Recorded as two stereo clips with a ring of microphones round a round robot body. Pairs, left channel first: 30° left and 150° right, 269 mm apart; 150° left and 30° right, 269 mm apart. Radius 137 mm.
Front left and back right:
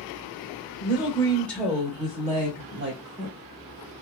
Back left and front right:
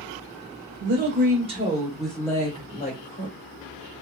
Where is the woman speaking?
20° right, 1.1 m; by 3.4 s 165° right, 1.3 m.